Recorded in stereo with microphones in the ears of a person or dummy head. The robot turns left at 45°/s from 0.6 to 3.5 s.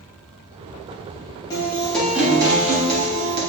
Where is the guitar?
20° left, 2.5 m; by 3.4 s 65° right, 2.5 m.